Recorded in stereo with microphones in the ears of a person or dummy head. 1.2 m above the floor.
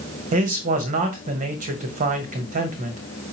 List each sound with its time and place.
0.3 s a man speaking: 40° right (ahead or behind), 1.1 m